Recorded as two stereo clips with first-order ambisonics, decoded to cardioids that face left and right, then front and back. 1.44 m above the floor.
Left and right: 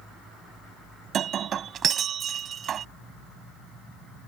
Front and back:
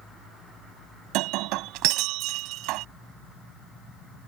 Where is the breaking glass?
150° right.